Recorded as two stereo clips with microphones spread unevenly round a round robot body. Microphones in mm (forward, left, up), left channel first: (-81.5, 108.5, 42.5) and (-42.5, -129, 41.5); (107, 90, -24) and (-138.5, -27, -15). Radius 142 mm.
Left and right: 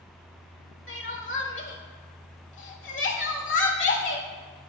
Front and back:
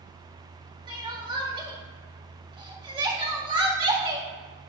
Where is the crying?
135° left, 1.9 m.